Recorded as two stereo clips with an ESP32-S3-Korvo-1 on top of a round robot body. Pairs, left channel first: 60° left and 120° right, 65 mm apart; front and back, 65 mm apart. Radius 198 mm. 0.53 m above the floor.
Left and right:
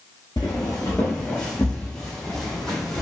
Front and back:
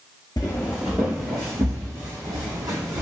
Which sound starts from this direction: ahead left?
Footsteps, at 0.4 s.